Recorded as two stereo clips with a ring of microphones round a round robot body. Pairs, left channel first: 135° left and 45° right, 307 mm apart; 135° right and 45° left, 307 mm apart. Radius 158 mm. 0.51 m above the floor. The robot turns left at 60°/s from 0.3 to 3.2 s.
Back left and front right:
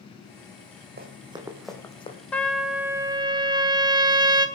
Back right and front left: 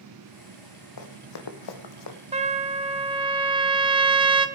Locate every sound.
1.0 s running footsteps: 105° right, 2 m; by 2.2 s 155° right, 1.9 m
2.3 s a trumpet: 60° left, 1.0 m; by 4.5 s 5° left, 1.0 m